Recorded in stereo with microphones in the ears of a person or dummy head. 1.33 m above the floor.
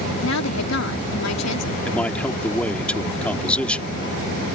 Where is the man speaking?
10° left (ahead or behind).